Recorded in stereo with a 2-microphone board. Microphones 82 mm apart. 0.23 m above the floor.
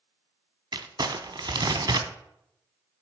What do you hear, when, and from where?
0.7 s crumpling: 60° right (ahead or behind), 0.5 m